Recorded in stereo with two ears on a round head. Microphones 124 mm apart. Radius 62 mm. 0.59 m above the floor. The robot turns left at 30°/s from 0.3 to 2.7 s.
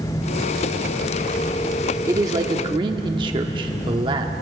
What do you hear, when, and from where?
2.1 s a man speaking: 20° right (ahead or behind), 1.0 m; by 4.3 s 35° right (ahead or behind), 1.0 m